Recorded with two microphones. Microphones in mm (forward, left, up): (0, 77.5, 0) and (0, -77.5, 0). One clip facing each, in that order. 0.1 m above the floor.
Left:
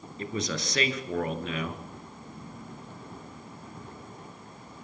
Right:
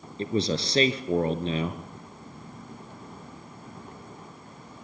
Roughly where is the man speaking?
Right.